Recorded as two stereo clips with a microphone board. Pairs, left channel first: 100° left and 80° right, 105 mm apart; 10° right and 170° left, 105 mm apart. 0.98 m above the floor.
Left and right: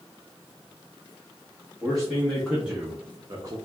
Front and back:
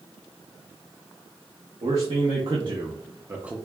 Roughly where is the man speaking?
Behind.